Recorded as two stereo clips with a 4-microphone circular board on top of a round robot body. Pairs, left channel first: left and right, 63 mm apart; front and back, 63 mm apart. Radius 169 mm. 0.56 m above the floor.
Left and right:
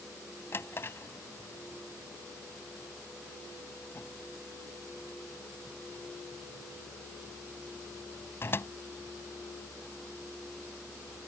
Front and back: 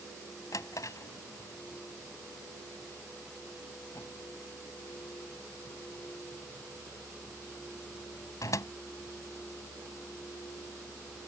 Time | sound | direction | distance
0.5 | a drawer | 35° left | ?